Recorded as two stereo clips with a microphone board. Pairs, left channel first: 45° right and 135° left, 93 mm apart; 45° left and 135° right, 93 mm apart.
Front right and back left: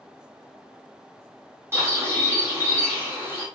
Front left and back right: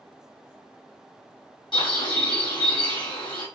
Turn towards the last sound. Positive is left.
turn(degrees=70)